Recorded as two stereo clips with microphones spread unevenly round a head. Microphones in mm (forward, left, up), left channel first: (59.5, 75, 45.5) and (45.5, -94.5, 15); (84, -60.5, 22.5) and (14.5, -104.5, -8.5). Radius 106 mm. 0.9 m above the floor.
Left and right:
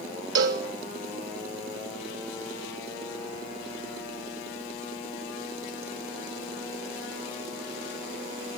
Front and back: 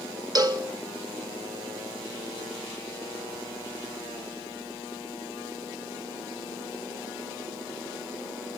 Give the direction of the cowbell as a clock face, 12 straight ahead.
4 o'clock.